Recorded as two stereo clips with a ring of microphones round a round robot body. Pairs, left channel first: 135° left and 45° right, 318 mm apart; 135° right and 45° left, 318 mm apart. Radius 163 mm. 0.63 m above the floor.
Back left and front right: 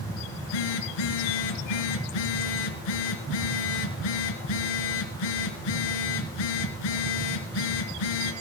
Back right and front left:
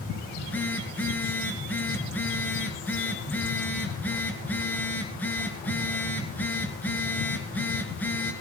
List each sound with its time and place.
0.3 s a phone buzzing: 140° left, 3 m